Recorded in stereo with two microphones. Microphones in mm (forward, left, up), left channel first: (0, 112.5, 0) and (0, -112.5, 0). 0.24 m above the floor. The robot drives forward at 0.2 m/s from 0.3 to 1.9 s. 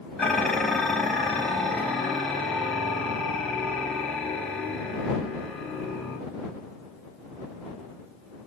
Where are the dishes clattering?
5° left (ahead or behind), 0.9 m.